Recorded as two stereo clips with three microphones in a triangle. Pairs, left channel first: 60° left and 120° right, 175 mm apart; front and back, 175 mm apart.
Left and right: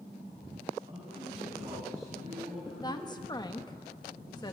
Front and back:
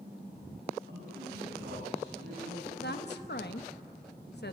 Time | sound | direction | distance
0.9 | a man speaking | 175° right | 7 m
2.8 | a woman speaking | 5° right | 1.2 m